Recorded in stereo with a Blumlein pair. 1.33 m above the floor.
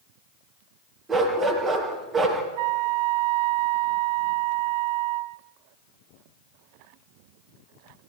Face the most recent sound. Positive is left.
turn(degrees=-50)